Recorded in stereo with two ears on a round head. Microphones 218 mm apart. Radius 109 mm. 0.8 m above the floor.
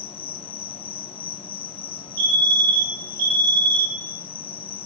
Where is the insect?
25° left (ahead or behind), 1.1 m.